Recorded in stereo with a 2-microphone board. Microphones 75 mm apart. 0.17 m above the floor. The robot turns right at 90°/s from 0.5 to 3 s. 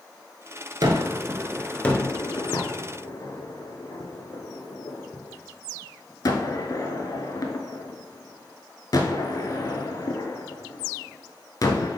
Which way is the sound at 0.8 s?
65° right (ahead or behind).